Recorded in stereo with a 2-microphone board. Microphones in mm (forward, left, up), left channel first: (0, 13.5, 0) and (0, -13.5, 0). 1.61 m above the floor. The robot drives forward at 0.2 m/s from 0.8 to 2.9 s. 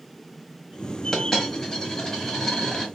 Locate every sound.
1.1 s a dropped coin: 20° left (ahead or behind), 1.2 m; by 2.9 s 15° left (ahead or behind), 1.5 m